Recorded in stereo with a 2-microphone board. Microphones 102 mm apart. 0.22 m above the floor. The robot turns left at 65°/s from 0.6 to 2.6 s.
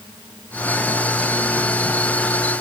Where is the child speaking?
No child speaking in this recording.